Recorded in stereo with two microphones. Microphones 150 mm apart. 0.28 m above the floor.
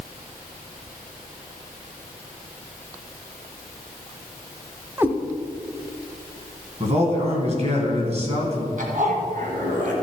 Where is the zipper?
65° right (ahead or behind), 2.5 m.